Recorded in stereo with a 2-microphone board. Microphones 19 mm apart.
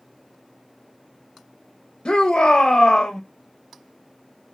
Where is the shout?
60° left (ahead or behind), 0.5 m.